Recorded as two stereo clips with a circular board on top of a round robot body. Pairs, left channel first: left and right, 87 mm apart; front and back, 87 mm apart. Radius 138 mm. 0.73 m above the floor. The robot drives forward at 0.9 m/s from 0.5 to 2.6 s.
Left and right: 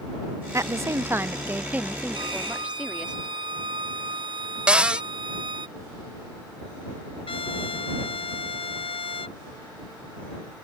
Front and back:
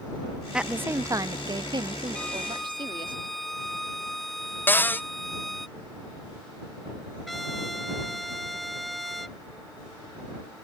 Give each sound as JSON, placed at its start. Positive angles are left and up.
{"t": 0.5, "sound": "a woman speaking", "azimuth_deg": -105}
{"t": 2.1, "sound": "a violin", "azimuth_deg": -80}
{"t": 4.7, "sound": "a cupboard door", "azimuth_deg": -30}
{"t": 7.3, "sound": "a trumpet", "azimuth_deg": 90}